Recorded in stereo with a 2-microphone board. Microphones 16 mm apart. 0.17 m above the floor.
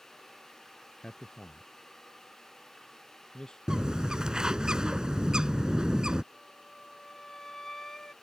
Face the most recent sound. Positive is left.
turn(degrees=30)  # may be behind; listen again after turning